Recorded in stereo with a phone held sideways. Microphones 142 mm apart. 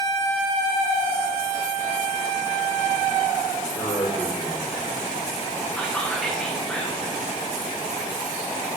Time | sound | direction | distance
3.8 | a man speaking | 20° left (ahead or behind) | 4.5 m
5.8 | whispering | 5° left (ahead or behind) | 0.9 m